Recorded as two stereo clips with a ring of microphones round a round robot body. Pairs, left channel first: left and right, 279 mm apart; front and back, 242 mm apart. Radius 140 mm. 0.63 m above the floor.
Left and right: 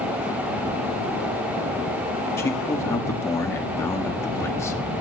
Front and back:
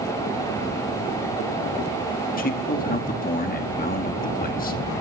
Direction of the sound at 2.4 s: 15° left.